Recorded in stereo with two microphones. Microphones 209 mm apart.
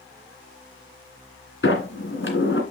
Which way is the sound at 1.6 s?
65° left (ahead or behind).